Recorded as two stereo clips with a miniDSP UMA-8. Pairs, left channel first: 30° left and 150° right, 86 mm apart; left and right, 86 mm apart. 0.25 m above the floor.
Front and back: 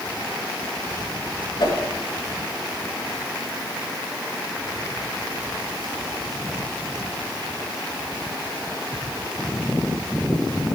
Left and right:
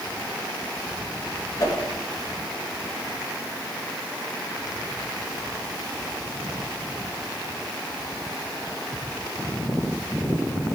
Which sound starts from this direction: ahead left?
A whoosh, at 1.6 s.